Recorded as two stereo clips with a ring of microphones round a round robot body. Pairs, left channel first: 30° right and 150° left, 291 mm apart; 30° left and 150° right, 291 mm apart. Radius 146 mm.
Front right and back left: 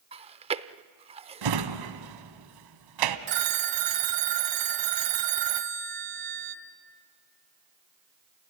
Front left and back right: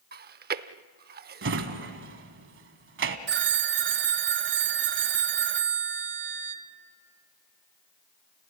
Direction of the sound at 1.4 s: 155° left.